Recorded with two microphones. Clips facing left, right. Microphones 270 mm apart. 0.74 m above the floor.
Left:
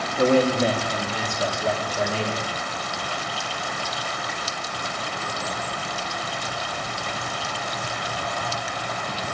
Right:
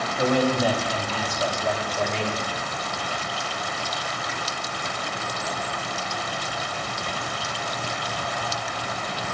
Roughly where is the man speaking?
Left.